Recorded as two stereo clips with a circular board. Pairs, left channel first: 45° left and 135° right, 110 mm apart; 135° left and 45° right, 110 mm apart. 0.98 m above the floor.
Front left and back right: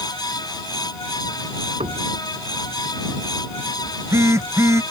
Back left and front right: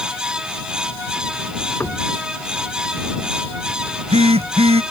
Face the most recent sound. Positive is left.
turn(degrees=-70)